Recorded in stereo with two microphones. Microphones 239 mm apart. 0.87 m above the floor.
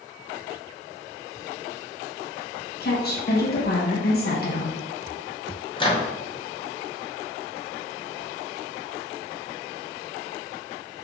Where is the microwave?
20° left (ahead or behind), 0.6 m.